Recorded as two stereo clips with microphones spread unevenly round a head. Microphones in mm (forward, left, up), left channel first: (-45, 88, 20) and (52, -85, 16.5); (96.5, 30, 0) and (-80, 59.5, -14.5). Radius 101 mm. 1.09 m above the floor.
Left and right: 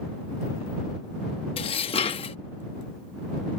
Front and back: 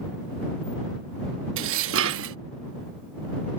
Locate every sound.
1.6 s dishes clattering: 175° right